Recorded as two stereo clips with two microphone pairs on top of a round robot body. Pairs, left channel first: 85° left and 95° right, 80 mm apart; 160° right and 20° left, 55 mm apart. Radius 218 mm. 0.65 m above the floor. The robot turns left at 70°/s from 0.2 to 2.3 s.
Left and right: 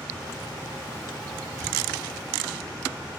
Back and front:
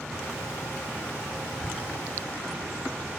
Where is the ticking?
90° right, 1.0 m; by 1.6 s 95° right, 1.0 m.